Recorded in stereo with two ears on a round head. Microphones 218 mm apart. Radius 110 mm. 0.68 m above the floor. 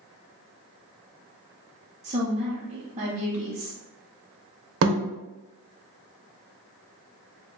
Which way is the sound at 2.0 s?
30° right (ahead or behind).